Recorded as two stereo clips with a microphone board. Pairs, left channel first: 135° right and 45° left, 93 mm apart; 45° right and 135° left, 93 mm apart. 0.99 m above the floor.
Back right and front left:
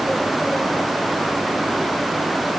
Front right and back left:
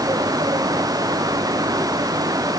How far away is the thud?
No thud in this recording.